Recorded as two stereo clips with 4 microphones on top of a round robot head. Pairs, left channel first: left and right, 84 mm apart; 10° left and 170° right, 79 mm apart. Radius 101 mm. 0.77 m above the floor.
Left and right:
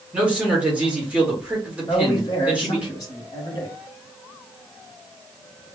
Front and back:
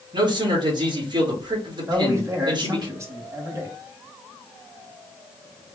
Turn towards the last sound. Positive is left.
turn(degrees=135)